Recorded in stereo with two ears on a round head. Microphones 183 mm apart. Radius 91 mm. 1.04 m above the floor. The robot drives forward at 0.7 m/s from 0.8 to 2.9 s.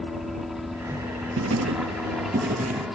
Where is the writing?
70° right (ahead or behind); by 2.9 s 30° right (ahead or behind).